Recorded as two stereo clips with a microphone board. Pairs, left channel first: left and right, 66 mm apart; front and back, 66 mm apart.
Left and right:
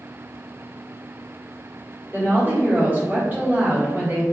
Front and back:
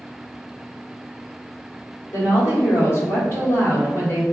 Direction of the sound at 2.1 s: 35° right.